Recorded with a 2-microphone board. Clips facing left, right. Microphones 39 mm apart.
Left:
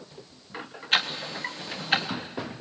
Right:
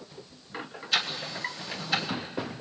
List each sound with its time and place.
0.9 s ticking: 50° left (ahead or behind), 1.8 m